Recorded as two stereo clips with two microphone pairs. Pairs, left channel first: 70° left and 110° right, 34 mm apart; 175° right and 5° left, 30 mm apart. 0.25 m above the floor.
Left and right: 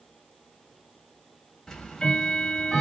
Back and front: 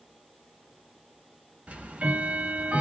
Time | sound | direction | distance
1.7 | ticking | 5° left | 1.0 m